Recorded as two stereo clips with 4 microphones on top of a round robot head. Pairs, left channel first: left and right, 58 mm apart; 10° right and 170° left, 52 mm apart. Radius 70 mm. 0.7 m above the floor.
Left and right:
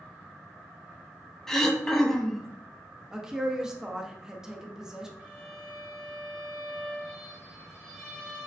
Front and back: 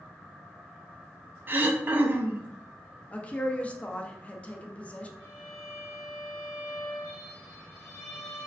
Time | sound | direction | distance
1.5 | throat clearing | 170° left | 0.5 m
3.1 | a woman speaking | 25° right | 0.5 m
5.2 | a violin | 20° right | 0.8 m